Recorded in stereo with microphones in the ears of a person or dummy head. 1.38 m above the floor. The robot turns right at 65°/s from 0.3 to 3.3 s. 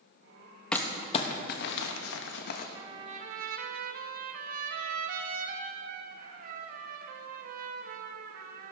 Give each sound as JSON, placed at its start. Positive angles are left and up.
{"t": 0.7, "sound": "crumpling", "side_deg": 10, "distance_m": 1.1}
{"t": 2.8, "sound": "a trumpet", "azimuth_deg": -160, "distance_m": 1.2}